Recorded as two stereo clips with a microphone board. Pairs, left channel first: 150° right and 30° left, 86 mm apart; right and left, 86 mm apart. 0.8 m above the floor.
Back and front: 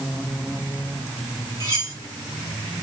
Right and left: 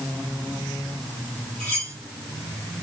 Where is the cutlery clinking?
20° right, 4 m.